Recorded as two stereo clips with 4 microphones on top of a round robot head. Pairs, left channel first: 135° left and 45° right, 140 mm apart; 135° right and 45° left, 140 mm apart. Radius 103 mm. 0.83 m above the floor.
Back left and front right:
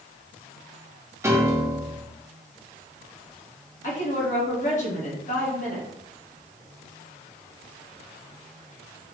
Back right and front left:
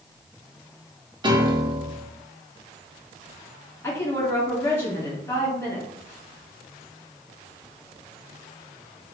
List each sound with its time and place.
1.2 s a piano: 15° left, 0.9 m
3.8 s a woman speaking: 155° left, 1.8 m